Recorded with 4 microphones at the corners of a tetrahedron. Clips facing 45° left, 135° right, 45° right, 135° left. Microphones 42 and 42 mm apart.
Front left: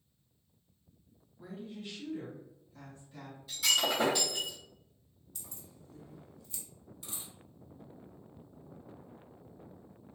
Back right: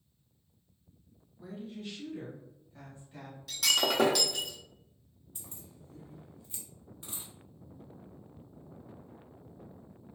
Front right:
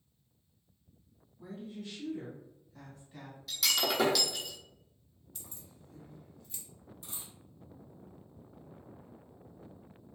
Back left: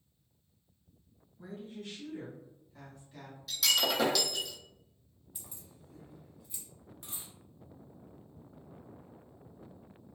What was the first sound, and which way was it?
A woman speaking, 120° left.